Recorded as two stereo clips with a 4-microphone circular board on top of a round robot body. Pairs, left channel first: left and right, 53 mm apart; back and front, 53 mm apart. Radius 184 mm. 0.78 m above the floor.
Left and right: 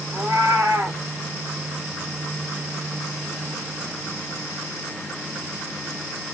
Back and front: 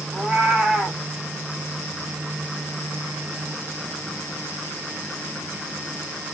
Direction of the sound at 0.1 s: 75° right.